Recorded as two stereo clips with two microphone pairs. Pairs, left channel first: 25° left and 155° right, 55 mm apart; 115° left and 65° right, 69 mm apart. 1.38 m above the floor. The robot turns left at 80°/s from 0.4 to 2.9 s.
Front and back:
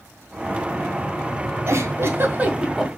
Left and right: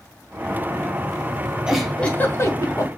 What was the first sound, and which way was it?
A giggle, 145° right.